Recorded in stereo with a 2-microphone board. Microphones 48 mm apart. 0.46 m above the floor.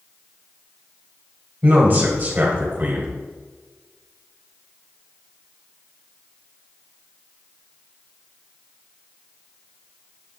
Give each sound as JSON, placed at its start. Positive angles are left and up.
{"t": 1.6, "sound": "a man speaking", "side_deg": -40, "distance_m": 1.9}